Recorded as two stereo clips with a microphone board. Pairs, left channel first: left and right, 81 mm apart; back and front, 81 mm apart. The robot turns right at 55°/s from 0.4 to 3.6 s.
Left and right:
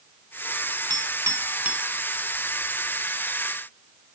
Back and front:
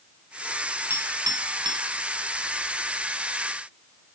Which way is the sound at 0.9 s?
60° right.